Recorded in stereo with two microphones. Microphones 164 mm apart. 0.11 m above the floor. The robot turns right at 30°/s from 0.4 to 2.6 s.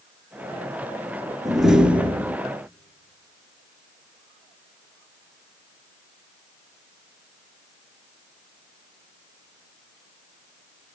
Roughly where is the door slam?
Centre.